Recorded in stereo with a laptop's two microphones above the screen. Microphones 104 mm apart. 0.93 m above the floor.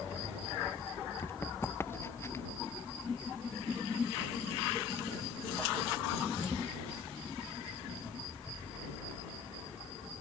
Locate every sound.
1.2 s running footsteps: 20° left (ahead or behind)